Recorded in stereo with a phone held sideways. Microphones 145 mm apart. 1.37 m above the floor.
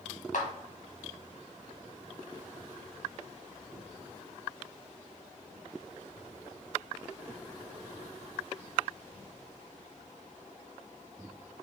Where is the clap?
70° left (ahead or behind), 1.3 m.